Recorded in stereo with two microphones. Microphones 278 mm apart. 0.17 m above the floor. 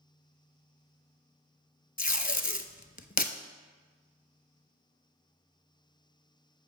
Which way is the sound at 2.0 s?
30° left (ahead or behind).